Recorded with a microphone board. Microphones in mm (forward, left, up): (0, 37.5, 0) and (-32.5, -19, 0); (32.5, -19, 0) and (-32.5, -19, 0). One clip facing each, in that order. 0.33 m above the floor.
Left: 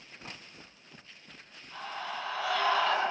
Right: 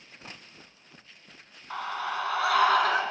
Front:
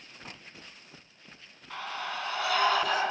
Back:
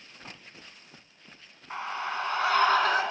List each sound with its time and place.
1.7 s a scream: 115° right, 3 m; by 3.0 s 140° right, 4 m